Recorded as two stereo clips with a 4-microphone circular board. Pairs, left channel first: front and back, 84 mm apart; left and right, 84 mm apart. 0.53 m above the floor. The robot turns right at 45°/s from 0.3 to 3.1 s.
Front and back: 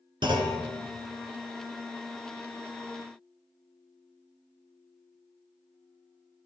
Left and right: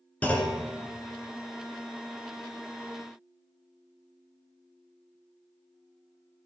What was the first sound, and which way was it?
A clunk, 160° left.